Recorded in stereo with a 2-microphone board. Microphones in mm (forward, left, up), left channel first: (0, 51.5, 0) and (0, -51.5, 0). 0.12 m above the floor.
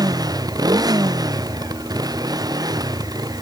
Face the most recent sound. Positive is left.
turn(degrees=-40)  # may be behind; listen again after turning